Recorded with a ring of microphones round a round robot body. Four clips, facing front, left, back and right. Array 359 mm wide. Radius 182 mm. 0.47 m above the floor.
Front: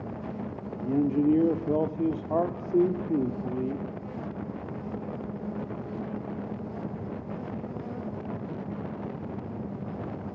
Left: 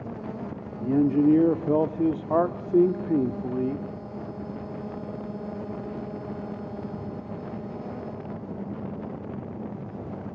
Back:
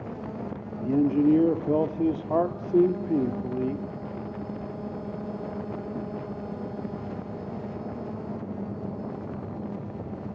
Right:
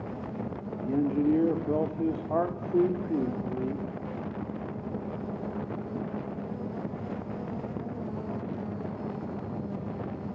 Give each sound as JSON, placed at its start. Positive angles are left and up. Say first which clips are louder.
{"t": 0.8, "sound": "a man speaking", "louder": "left 6 dB, back 3 dB", "azimuth_deg": 105, "distance_m": 1.1}